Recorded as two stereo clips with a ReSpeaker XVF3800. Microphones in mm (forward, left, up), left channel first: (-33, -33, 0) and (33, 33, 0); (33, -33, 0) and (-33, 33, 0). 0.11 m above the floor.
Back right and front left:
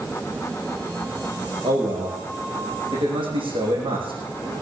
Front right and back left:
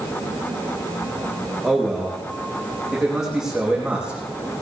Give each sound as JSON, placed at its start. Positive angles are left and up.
{"t": 1.6, "sound": "a man speaking", "azimuth_deg": 40, "distance_m": 6.5}